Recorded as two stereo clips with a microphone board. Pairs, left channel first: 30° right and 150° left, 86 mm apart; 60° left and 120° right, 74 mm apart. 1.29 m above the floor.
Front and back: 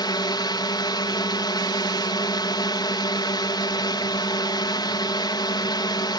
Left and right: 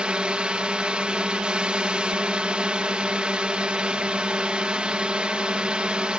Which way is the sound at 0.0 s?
45° right.